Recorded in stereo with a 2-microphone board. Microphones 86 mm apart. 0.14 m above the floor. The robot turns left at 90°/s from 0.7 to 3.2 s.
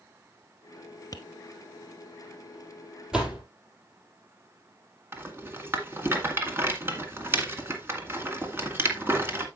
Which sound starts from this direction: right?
A rattle, at 5.1 s.